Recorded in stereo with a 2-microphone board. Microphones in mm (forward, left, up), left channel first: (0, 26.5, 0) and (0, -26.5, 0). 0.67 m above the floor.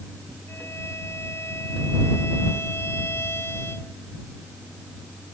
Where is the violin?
50° left (ahead or behind).